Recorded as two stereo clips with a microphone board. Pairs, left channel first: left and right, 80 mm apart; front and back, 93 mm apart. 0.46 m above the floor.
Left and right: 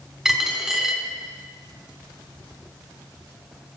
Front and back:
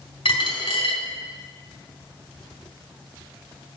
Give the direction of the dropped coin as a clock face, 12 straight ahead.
12 o'clock.